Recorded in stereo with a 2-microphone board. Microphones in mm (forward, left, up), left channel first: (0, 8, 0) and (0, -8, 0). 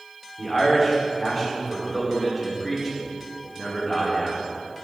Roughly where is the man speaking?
Centre.